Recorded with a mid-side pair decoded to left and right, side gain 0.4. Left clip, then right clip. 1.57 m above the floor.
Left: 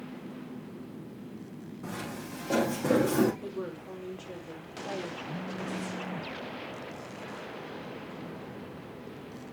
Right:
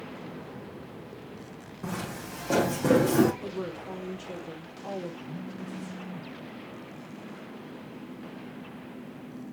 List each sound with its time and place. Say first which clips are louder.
1.8 s footsteps: right 3 dB; 40° right, 6 m; by 3.3 s 35° right, 5.5 m
3.4 s a woman speaking: right 3 dB; 25° right, 5.5 m
5.3 s a phone buzzing: left 4 dB; 10° left, 1.6 m